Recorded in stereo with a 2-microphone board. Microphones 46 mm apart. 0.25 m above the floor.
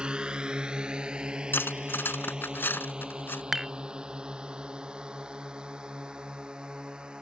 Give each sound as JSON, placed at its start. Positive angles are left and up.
{"t": 0.0, "sound": "a drone", "side_deg": -20}
{"t": 1.5, "sound": "cutlery clinking", "side_deg": 55}
{"t": 3.5, "sound": "dishes clattering", "side_deg": -10}